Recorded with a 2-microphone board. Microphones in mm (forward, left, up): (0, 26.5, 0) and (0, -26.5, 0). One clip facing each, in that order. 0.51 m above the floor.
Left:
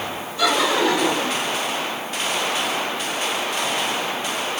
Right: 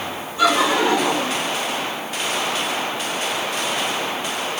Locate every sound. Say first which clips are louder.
0.4 s laughter: right 2 dB; 25° right (ahead or behind), 4.5 m; by 1.4 s 15° right (ahead or behind), 4 m